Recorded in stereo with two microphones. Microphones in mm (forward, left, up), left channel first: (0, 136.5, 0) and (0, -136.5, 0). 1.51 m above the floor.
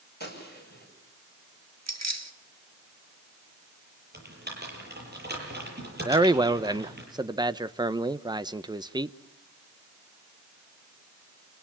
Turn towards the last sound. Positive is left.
turn(degrees=-15)  # may be behind; listen again after turning